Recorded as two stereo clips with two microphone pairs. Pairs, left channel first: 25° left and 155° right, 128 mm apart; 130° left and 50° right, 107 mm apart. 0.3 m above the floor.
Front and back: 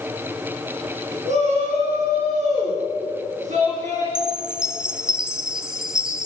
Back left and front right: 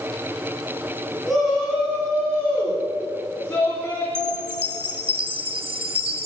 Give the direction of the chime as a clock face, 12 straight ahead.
2 o'clock.